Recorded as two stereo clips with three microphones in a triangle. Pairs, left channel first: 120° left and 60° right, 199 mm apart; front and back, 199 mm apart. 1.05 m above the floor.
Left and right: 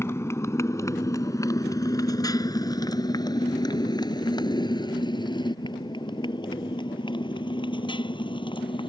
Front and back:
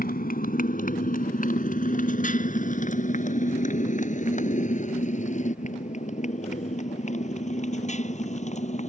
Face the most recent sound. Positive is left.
turn(degrees=55)